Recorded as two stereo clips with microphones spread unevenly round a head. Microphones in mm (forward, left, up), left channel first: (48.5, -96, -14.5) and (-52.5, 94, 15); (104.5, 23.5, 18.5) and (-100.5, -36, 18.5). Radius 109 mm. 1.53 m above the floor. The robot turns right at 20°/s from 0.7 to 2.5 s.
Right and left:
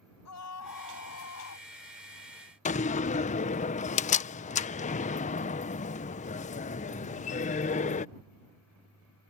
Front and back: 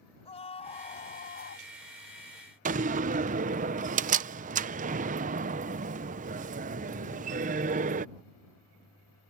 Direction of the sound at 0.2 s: 50° right.